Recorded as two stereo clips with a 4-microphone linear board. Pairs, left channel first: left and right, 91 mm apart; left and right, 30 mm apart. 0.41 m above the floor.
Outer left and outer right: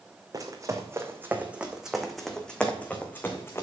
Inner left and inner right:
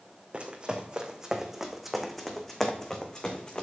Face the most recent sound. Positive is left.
turn(degrees=30)  # may be behind; listen again after turning